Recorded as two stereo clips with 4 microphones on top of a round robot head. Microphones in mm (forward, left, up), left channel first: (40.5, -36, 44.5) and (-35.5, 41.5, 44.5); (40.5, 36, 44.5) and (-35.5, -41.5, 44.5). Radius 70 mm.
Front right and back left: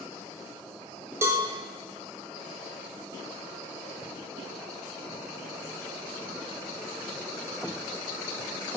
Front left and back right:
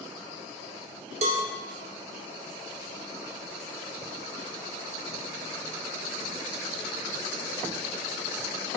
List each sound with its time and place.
1.2 s a cowbell: 160° right, 1.3 m